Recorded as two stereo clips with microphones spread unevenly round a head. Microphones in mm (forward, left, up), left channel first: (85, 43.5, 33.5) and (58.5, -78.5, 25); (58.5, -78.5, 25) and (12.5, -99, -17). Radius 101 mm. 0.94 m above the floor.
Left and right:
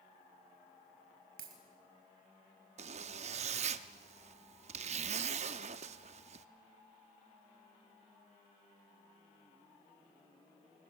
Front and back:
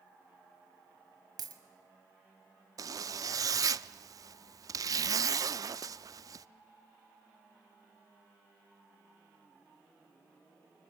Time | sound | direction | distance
1.4 | a dropped coin | 150° right | 1.6 m
2.8 | a zipper | 105° right | 0.5 m